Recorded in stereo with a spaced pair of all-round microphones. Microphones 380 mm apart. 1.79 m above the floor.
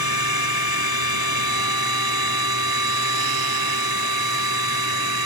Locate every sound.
0.0 s a machine running: 70° right (ahead or behind)